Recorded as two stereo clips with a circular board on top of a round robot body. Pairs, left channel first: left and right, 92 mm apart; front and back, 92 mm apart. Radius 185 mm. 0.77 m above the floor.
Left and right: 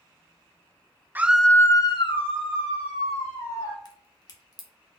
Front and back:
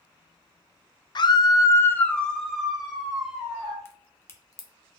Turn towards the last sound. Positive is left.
turn(degrees=55)